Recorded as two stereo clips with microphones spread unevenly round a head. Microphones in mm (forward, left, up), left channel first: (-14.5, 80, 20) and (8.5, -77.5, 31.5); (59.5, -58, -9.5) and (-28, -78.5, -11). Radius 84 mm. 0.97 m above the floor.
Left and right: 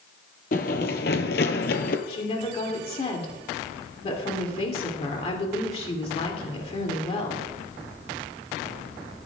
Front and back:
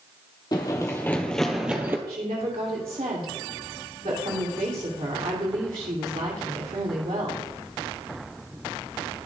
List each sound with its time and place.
0.5 s running footsteps: 60° left, 1.7 m; by 2.0 s 125° left, 1.4 m
2.1 s a woman speaking: 150° left, 2.5 m